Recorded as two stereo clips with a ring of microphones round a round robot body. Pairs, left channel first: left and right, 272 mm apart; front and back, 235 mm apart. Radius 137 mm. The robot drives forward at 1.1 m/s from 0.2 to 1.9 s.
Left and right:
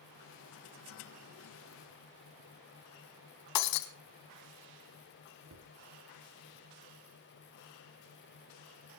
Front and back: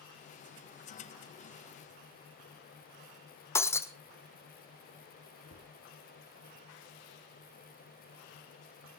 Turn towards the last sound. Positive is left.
turn(degrees=-50)